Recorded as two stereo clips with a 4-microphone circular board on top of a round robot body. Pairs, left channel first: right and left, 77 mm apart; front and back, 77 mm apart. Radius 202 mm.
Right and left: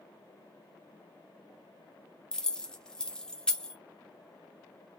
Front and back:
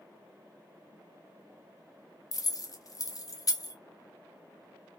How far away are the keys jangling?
About 0.8 m.